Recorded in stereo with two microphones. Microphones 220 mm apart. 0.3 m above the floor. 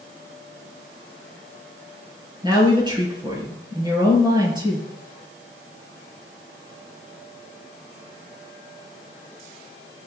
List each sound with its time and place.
2.4 s a woman speaking: 20° right (ahead or behind), 5 m